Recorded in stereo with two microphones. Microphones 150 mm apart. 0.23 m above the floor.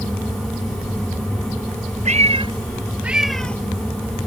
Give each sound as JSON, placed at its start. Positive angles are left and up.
{"t": 2.0, "sound": "a cat meowing", "side_deg": -55}